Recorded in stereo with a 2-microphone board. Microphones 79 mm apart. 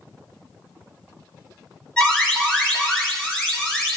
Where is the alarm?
10° left (ahead or behind), 3.5 m.